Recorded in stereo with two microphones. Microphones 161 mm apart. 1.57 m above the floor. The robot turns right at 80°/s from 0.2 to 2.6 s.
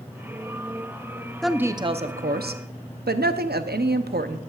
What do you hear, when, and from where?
1.4 s a woman speaking: straight behind, 0.7 m; by 4.4 s 90° right, 0.7 m